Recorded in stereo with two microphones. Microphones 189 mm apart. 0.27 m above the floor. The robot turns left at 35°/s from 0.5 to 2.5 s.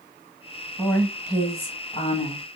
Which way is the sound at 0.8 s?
160° left.